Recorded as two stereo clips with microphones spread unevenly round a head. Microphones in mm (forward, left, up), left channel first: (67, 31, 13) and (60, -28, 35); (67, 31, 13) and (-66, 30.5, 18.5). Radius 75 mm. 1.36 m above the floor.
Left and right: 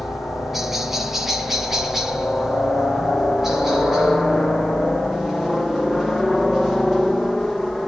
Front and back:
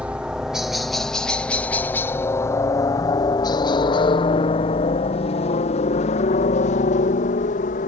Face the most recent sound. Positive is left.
turn(degrees=0)